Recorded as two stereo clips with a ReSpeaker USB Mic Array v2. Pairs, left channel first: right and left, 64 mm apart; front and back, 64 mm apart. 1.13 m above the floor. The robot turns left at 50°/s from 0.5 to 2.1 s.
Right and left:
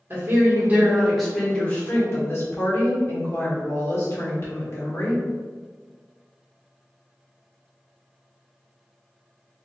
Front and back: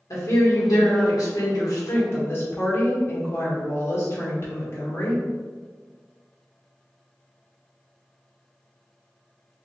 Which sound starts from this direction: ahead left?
A woman speaking, at 0.1 s.